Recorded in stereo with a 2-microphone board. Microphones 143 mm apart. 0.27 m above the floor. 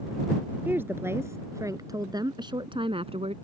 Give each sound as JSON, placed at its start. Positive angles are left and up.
{"t": 0.7, "sound": "a woman speaking", "side_deg": -15}